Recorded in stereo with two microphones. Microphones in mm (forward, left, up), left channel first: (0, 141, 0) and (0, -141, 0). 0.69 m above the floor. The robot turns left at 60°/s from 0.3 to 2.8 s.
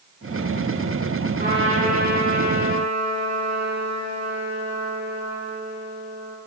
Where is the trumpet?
30° right, 7 m; by 6.4 s 115° right, 7 m.